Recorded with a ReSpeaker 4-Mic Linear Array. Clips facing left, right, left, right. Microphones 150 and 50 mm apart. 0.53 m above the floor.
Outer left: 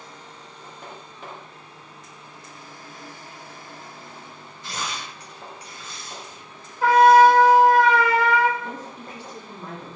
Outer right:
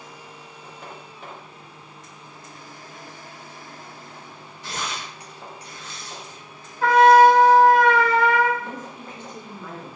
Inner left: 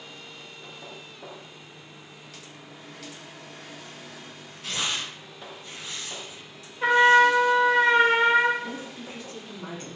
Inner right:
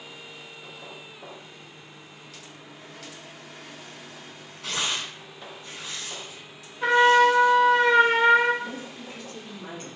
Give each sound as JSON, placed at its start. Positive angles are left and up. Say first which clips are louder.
{"t": 4.6, "sound": "tearing paper", "louder": "outer right 1 dB, inner right 1 dB", "side_deg": -80, "distance_m": 1.1}
{"t": 6.8, "sound": "a trumpet", "louder": "even, even", "side_deg": 10, "distance_m": 0.7}
{"t": 8.6, "sound": "a woman speaking", "louder": "even, even", "side_deg": 35, "distance_m": 1.1}